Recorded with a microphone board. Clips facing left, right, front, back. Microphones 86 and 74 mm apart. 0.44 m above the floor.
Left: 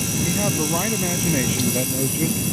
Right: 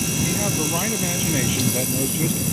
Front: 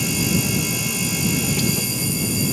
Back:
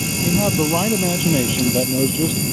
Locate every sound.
0.2 s a man speaking: 170° left; by 2.4 s straight behind